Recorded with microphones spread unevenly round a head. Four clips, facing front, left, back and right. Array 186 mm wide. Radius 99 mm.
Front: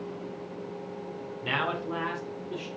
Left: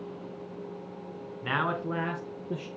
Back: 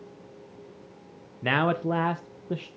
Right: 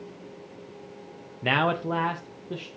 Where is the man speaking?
145° right, 0.9 m; by 2.7 s 160° left, 1.0 m.